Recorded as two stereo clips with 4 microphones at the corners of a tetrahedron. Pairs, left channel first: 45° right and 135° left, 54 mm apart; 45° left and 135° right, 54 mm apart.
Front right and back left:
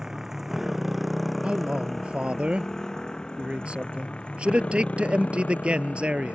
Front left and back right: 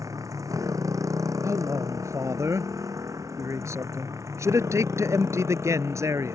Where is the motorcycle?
145° right; by 6.3 s 105° right.